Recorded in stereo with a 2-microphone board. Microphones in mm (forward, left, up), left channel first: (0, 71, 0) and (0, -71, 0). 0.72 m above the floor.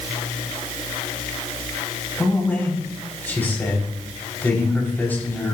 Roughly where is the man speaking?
Centre.